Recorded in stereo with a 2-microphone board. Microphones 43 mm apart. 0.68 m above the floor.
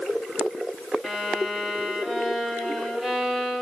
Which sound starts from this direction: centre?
A violin, at 1.0 s.